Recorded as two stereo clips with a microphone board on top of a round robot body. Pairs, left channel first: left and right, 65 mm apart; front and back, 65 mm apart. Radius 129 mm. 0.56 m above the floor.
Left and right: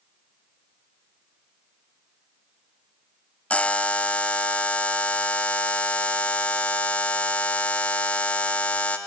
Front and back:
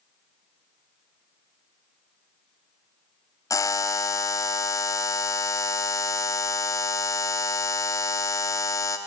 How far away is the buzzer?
About 1.1 m.